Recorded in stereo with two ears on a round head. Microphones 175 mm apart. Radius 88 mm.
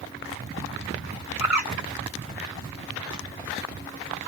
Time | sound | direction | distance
1.4 | a bird | 15° right (ahead or behind) | 1.4 m